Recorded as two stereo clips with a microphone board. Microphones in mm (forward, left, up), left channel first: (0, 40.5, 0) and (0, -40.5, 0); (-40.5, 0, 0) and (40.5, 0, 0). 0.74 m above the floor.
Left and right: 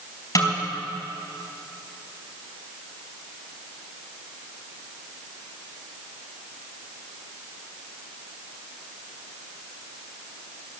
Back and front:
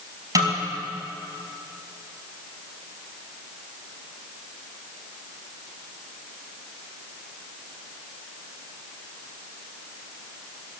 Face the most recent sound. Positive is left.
turn(degrees=45)